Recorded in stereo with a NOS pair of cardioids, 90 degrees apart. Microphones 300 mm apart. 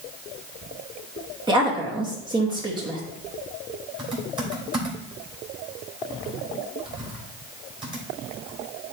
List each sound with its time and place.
1.5 s a woman speaking: 15° right, 2.5 m
4.0 s typing on a keyboard: 15° right, 3.5 m